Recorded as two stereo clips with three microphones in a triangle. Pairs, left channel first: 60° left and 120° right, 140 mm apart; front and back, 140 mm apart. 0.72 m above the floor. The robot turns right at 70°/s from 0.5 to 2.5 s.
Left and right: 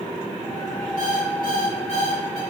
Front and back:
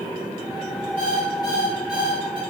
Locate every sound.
1.0 s an alarm clock: 30° left, 3.5 m; by 2.4 s 130° left, 3.5 m